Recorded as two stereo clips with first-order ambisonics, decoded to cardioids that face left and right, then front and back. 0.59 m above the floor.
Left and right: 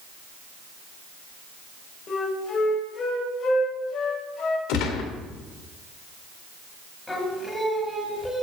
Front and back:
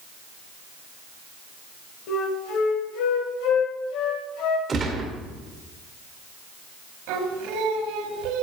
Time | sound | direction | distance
2.1 | a flute | 25° left | 2 m
4.7 | a gunshot | 110° left | 1.9 m
7.1 | singing | 175° left | 2.0 m